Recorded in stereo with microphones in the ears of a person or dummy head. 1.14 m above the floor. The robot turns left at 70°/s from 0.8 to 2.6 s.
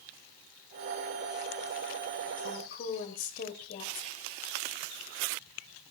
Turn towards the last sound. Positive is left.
turn(degrees=50)  # may be behind; listen again after turning